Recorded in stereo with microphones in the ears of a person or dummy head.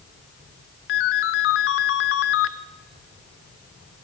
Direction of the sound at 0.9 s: 55° left (ahead or behind).